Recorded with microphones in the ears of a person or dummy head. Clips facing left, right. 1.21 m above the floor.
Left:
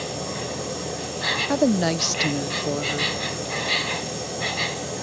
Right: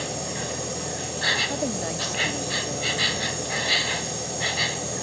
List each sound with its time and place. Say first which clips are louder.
0.0 s an insect: left 1 dB; 10° right (ahead or behind)
1.5 s a woman speaking: left 11 dB; 70° left (ahead or behind)